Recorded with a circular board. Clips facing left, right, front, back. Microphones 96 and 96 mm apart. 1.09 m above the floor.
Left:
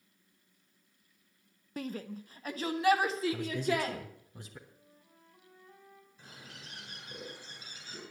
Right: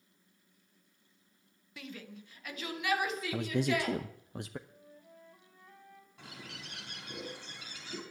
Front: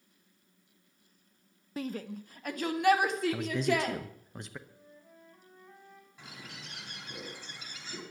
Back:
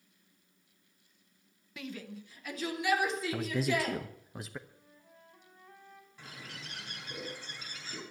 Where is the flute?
65° right, 6 m.